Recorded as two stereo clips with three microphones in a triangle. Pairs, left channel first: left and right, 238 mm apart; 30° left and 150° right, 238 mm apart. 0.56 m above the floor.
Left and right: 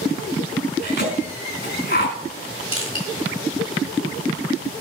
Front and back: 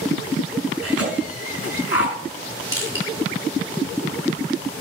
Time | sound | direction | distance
0.8 | a cough | 45° left | 5 m
2.7 | crushing | 65° left | 4.5 m